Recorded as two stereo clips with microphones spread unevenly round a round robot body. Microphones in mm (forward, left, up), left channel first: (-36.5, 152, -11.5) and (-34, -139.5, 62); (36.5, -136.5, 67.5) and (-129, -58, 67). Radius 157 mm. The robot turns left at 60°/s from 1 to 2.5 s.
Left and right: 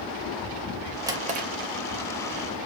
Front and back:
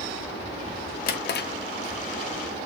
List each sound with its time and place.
1.1 s a drawer: straight ahead, 0.5 m; by 1.5 s 25° right, 0.5 m